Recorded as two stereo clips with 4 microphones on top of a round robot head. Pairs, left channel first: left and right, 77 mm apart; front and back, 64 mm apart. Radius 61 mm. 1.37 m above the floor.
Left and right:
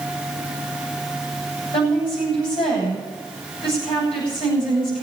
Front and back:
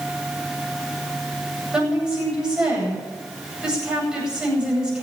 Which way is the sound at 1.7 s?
105° left.